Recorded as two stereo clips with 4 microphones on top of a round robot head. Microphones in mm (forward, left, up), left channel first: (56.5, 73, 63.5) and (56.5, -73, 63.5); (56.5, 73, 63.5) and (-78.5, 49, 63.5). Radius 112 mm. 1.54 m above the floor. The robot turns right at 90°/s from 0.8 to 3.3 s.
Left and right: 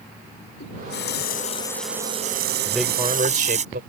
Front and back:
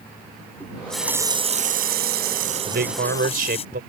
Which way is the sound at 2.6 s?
170° left.